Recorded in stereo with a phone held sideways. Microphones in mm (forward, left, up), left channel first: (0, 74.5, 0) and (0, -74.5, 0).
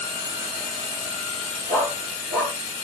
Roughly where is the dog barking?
Centre.